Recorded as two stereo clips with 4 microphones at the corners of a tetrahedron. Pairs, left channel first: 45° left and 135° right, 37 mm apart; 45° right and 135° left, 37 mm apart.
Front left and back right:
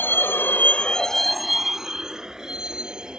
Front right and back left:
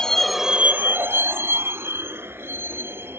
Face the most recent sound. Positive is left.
turn(degrees=155)